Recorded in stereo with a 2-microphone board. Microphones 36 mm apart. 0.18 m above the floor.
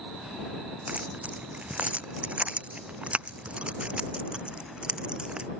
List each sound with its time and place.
0.9 s keys jangling: 45° right (ahead or behind); by 5.5 s 25° right (ahead or behind)